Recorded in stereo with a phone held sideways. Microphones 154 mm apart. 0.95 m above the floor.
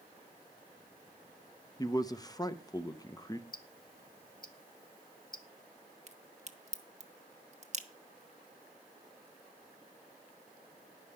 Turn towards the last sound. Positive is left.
turn(degrees=-45)  # may be behind; listen again after turning